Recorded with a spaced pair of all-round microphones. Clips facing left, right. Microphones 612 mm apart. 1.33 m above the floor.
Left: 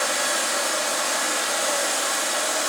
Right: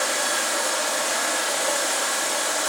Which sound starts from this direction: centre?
Running water, at 0.0 s.